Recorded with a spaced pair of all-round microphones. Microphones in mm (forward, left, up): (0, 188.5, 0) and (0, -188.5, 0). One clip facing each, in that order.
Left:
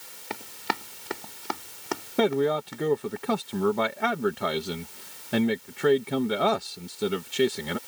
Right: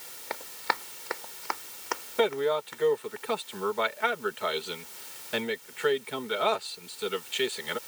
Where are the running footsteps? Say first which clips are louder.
Left 3 dB; 40° left (ahead or behind); by 3.2 s 55° left (ahead or behind).